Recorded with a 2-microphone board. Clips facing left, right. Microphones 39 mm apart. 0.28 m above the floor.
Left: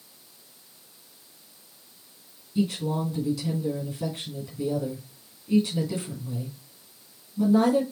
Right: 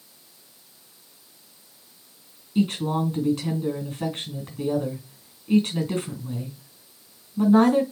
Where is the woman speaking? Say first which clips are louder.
Right 3 dB; 55° right (ahead or behind), 3 m.